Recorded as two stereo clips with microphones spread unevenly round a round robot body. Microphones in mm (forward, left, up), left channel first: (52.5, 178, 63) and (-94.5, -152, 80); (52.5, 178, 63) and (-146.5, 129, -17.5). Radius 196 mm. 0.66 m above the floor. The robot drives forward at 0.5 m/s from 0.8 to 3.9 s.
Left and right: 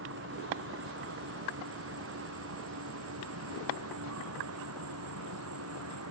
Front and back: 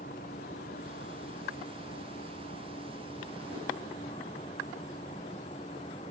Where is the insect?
55° right; by 6.1 s 60° right.